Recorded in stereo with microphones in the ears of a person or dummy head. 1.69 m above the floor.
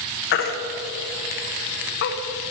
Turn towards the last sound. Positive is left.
turn(degrees=50)  # may be behind; listen again after turning